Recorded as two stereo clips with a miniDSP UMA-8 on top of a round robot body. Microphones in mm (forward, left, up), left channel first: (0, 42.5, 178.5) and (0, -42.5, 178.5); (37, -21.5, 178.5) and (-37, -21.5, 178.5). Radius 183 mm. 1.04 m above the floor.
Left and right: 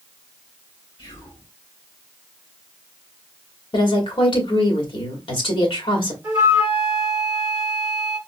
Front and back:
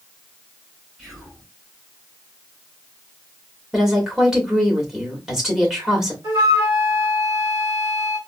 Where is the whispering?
95° left, 3 m.